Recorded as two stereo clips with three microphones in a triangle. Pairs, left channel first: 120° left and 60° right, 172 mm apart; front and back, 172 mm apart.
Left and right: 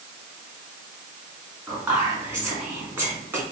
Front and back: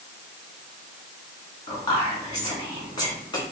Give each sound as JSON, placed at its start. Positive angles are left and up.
{"t": 1.7, "sound": "whispering", "azimuth_deg": -5, "distance_m": 1.4}